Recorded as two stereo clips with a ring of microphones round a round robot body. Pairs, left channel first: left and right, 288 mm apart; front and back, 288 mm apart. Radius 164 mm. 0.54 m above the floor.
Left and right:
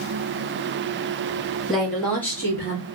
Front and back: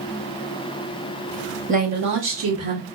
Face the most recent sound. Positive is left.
turn(degrees=170)